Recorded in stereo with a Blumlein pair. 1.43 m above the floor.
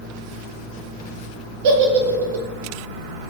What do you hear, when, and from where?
1.6 s a giggle: 50° right, 0.5 m